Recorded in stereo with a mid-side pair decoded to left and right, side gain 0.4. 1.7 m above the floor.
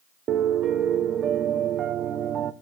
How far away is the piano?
About 0.8 m.